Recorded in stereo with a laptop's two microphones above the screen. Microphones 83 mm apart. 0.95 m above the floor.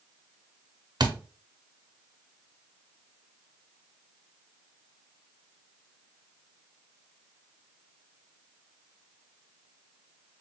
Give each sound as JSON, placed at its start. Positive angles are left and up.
{"t": 1.0, "sound": "a thud", "side_deg": -60, "distance_m": 0.7}